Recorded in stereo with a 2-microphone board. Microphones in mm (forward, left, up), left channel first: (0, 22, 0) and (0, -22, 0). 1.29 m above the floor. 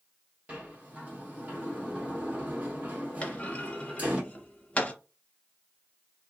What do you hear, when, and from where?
0.5 s a sliding door: 30° right (ahead or behind), 1.3 m
3.2 s a clunk: 25° left (ahead or behind), 0.8 m